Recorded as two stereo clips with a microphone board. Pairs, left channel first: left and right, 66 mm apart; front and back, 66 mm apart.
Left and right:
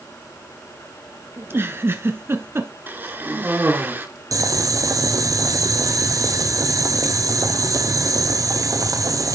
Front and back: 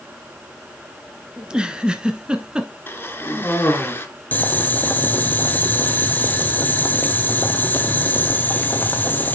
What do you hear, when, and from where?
1.4 s a giggle: 110° right, 1.2 m
2.9 s a cough: 45° right, 2.5 m
4.3 s boiling: 60° right, 1.0 m